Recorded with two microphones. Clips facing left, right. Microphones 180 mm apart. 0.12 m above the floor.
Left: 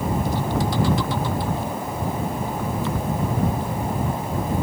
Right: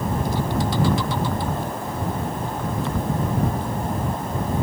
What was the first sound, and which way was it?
Only background noise.